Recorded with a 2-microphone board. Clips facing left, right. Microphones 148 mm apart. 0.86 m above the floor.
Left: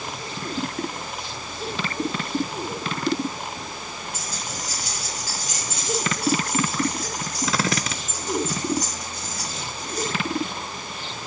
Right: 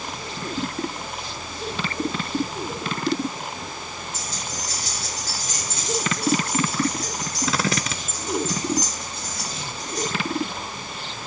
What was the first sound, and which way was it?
Keys jangling, 15° left (ahead or behind).